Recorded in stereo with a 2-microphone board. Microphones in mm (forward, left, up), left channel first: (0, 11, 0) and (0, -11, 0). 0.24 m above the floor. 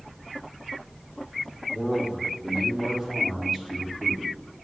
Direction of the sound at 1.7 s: 35° right (ahead or behind).